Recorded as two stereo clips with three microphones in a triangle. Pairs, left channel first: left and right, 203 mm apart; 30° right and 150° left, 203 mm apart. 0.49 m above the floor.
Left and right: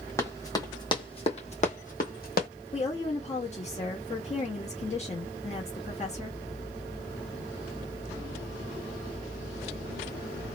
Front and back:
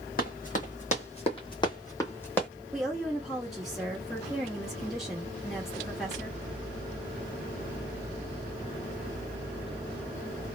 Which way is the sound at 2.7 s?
65° left.